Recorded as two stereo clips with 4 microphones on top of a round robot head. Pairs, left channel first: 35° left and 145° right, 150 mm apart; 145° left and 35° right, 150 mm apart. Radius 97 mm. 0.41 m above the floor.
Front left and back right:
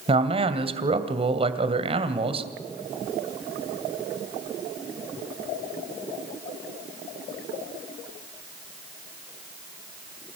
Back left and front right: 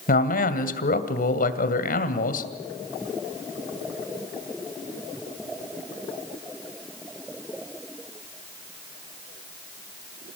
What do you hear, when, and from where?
0.1 s a man speaking: 165° left, 2.5 m